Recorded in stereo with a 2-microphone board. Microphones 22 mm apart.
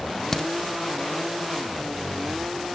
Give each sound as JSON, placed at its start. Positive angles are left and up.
{"t": 0.3, "sound": "a crack", "side_deg": 25, "distance_m": 0.7}